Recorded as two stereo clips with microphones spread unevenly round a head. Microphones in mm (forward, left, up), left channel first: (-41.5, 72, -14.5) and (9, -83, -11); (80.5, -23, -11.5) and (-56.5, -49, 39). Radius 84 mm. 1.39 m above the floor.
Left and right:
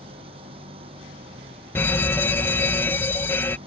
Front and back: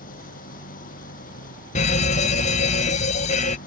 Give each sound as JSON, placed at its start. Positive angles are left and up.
{"t": 0.0, "sound": "an engine running", "azimuth_deg": -10}
{"t": 1.8, "sound": "a fire alarm", "azimuth_deg": 30}